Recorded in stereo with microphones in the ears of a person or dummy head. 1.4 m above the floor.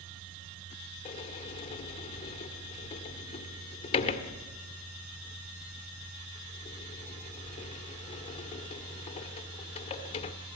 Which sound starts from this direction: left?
A sliding door, at 1.1 s.